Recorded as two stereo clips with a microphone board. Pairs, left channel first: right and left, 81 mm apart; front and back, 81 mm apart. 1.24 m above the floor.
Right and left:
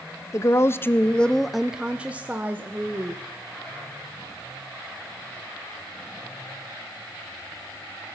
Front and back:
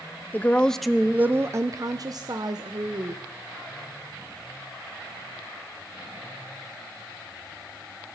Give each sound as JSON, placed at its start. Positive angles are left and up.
{"t": 0.3, "sound": "a woman speaking", "azimuth_deg": -60, "distance_m": 0.6}